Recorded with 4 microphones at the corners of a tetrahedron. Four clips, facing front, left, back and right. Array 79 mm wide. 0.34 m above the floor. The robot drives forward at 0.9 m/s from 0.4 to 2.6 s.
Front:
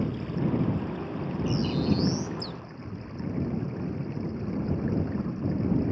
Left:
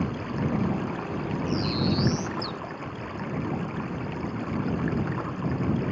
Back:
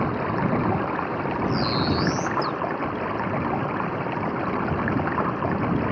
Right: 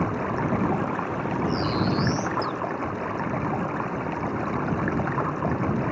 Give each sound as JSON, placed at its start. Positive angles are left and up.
{"t": 0.0, "sound": "running water", "azimuth_deg": -150}
{"t": 1.5, "sound": "a bird", "azimuth_deg": 110}